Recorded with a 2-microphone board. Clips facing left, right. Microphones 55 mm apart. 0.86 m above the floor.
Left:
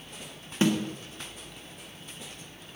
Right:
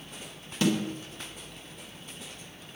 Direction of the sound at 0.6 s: 25° left (ahead or behind).